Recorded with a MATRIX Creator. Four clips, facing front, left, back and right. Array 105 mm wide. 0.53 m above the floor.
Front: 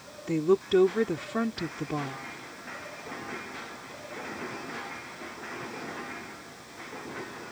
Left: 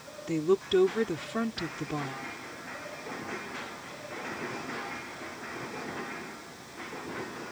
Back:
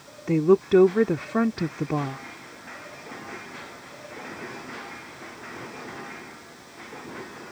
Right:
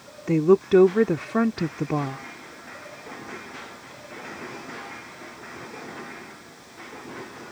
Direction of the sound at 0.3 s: 125° right.